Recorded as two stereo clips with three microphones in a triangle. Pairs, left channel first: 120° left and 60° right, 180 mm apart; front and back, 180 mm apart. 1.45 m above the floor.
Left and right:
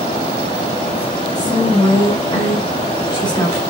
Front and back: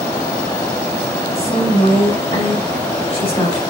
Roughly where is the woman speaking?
Ahead left.